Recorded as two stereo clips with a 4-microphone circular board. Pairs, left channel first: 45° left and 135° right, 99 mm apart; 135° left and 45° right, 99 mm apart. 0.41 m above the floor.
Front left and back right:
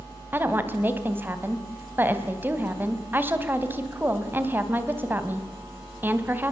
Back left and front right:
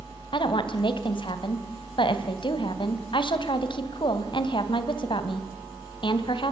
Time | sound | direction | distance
0.3 | a woman speaking | 160° left | 2.5 m